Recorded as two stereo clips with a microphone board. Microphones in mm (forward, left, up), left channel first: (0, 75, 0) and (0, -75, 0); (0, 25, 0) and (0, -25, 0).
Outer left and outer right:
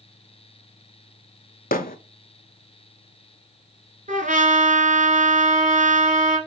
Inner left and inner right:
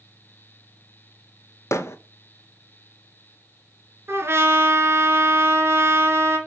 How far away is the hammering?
About 0.6 m.